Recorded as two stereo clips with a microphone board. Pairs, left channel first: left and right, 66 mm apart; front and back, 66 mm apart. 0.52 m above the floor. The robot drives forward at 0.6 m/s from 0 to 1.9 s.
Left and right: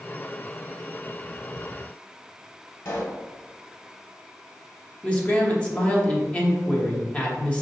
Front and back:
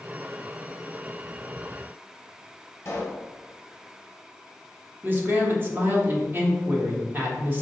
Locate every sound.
2.9 s a pop: 55° left, 0.9 m
5.0 s a man speaking: 145° left, 1.0 m